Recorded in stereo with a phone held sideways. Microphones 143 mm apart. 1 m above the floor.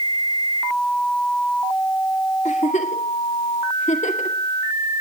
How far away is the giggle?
About 2 m.